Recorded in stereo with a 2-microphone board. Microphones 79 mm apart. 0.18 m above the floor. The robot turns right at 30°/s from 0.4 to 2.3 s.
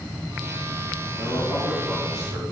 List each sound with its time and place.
1.2 s a man speaking: 150° right, 2.5 m; by 2.4 s 115° right, 2.5 m